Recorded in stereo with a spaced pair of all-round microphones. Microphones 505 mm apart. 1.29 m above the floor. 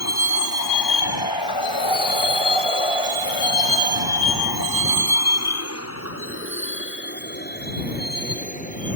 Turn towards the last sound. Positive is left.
turn(degrees=15)  # may be behind; listen again after turning